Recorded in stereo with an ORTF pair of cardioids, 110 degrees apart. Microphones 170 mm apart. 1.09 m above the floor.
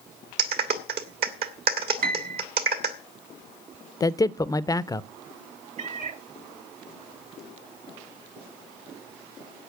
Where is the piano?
55° right, 1.6 m.